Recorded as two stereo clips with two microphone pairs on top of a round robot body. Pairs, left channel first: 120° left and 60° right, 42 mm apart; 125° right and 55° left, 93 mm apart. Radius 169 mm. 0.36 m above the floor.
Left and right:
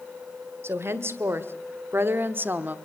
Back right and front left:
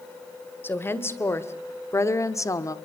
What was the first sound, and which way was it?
A woman speaking, 60° right.